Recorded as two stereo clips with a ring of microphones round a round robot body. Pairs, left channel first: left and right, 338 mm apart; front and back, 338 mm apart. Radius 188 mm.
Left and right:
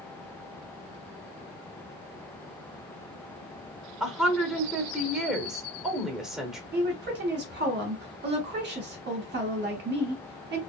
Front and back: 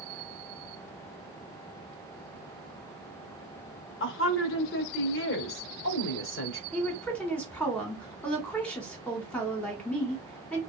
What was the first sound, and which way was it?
A woman speaking, straight ahead.